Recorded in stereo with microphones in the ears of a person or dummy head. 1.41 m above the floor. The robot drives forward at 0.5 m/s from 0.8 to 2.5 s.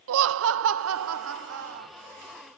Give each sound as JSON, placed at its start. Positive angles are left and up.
{"t": 0.1, "sound": "laughter", "side_deg": -75, "distance_m": 0.5}